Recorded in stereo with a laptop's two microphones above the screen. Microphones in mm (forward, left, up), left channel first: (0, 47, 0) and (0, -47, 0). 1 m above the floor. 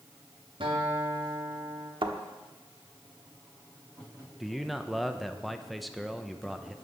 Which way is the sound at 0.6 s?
70° right (ahead or behind).